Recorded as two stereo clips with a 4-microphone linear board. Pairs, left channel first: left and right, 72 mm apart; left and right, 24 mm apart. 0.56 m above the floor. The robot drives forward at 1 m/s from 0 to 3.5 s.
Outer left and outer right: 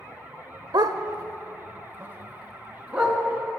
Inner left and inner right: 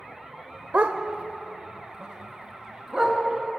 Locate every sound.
0.7 s a dog barking: 80° right, 0.7 m; by 3.2 s 15° right (ahead or behind), 2.5 m